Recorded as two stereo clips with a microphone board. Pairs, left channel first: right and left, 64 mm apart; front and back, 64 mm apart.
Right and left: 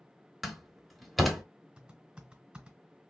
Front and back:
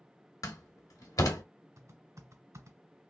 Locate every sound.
0.4 s a door slam: straight ahead, 1.1 m
1.8 s typing on a keyboard: 165° left, 1.5 m